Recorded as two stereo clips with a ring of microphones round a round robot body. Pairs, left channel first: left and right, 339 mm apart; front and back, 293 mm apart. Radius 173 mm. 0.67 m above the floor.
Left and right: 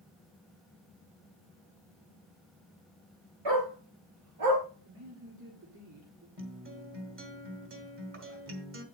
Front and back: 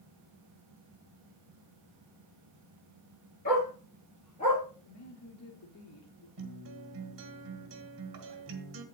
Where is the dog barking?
65° right, 6.5 m; by 4.6 s 70° right, 7 m.